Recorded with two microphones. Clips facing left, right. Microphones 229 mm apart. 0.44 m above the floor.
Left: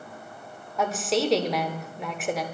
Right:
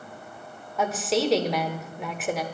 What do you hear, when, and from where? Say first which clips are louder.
0.8 s a woman speaking: even; centre (ahead or behind), 0.9 m